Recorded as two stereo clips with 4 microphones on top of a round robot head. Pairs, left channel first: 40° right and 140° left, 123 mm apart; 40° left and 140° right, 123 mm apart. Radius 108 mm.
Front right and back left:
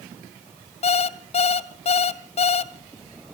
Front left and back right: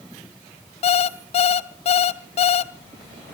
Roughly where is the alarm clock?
Ahead.